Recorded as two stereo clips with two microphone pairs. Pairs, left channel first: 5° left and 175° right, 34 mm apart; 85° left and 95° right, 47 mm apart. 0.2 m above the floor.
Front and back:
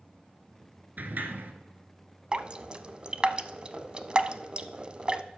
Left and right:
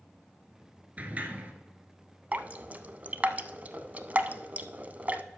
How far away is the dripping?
About 0.5 m.